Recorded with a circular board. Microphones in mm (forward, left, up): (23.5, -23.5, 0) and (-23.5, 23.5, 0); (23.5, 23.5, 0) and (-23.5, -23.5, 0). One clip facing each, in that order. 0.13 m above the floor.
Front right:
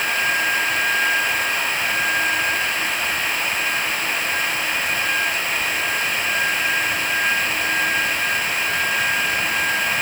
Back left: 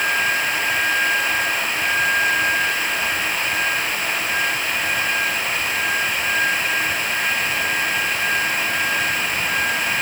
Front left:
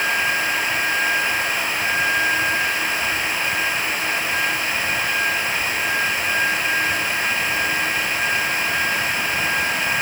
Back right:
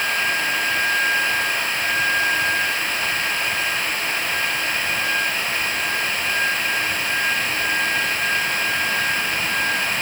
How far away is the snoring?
I don't hear snoring.